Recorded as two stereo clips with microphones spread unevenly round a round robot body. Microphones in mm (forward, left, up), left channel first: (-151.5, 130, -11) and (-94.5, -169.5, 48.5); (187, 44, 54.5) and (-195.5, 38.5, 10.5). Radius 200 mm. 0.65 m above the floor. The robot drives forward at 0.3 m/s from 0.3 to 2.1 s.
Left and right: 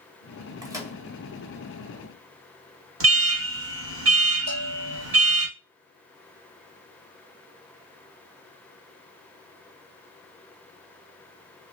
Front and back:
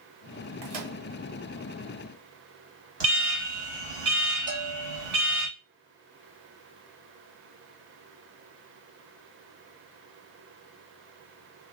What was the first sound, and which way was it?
A microwave, 160° right.